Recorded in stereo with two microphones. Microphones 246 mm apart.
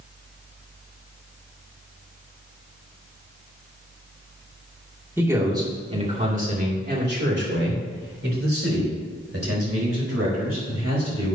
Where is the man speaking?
10° right (ahead or behind), 2.5 m; by 11.3 s 80° right, 5.5 m.